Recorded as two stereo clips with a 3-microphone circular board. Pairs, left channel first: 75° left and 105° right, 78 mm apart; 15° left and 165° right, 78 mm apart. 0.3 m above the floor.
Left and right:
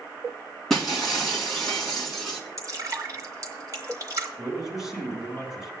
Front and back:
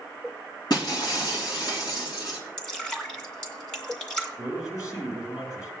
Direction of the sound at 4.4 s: 20° right.